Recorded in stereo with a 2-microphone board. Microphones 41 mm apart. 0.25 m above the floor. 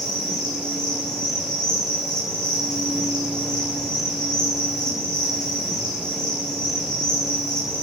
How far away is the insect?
About 5.5 m.